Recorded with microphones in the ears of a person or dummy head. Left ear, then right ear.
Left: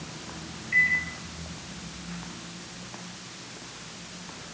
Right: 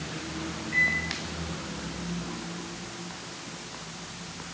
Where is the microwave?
35° left (ahead or behind), 2.5 m.